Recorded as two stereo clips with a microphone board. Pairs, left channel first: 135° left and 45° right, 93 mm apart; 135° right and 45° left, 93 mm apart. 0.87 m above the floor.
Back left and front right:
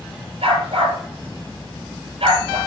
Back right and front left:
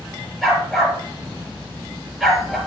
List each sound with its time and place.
0.4 s a dog barking: 45° right, 4.5 m